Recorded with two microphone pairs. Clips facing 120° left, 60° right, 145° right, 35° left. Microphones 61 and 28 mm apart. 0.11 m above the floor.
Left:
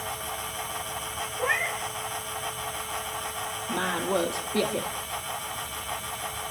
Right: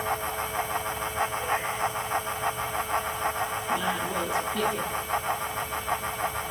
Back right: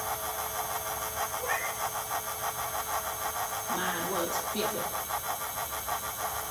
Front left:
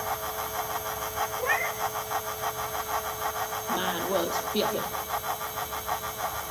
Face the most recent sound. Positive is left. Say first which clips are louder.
# left 3 dB, front left 4 dB
turn(degrees=100)